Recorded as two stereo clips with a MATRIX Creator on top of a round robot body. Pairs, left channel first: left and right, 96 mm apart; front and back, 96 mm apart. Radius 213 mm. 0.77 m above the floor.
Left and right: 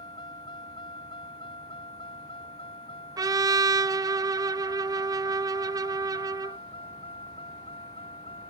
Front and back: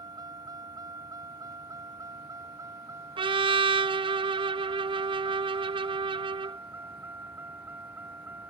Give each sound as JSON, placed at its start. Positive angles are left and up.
{"t": 0.0, "sound": "a vehicle", "azimuth_deg": 130}
{"t": 3.2, "sound": "a trumpet", "azimuth_deg": -145}